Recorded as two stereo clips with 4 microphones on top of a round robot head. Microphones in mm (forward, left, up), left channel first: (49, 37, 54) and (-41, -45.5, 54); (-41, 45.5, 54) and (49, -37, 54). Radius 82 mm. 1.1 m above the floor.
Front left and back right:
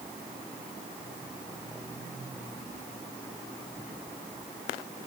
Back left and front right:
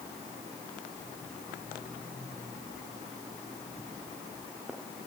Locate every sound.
Only background noise.